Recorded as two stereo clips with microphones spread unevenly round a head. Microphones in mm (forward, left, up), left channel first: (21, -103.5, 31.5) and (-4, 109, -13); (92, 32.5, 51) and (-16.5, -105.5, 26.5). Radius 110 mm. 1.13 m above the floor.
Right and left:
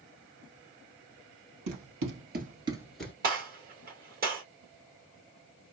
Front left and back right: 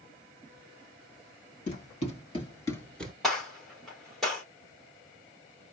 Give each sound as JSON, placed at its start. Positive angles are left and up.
{"t": 1.7, "sound": "running footsteps", "azimuth_deg": 95, "distance_m": 1.8}
{"t": 3.2, "sound": "a gunshot", "azimuth_deg": 145, "distance_m": 1.6}